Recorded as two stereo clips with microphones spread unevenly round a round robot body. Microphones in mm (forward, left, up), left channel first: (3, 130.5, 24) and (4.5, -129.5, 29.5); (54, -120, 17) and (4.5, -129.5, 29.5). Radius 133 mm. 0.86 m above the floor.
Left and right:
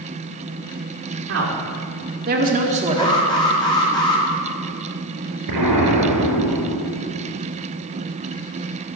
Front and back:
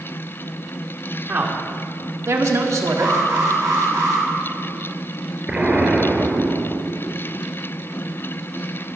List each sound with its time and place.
1.3 s a woman speaking: 125° right, 3 m; by 3.2 s 165° right, 2 m
3.0 s an alarm: 160° left, 3 m
5.5 s an explosion: 105° right, 4 m